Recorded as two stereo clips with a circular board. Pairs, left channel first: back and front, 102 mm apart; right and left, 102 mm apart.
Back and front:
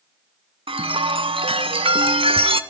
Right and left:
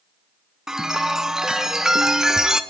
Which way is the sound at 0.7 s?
5° left.